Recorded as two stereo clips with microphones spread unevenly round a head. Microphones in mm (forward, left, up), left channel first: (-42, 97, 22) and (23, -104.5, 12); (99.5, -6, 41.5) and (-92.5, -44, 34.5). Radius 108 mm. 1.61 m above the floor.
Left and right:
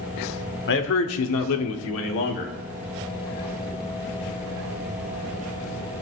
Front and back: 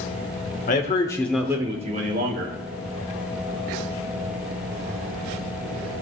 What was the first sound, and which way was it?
A man speaking, 65° left.